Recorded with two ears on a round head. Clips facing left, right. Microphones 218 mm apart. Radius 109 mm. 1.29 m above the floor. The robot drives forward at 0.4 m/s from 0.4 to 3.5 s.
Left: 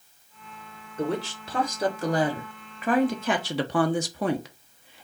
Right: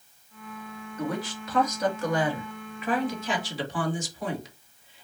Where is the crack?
No crack in this recording.